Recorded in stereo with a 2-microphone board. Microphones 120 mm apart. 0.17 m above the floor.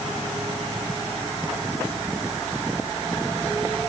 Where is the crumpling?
I don't hear crumpling.